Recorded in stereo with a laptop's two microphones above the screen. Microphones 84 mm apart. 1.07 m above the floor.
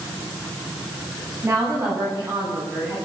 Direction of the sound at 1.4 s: 30° right (ahead or behind).